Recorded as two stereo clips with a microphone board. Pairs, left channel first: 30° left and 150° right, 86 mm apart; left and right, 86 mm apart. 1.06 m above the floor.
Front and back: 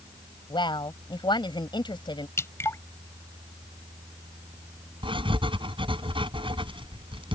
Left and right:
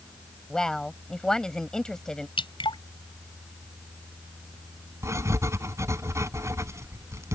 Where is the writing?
145° right.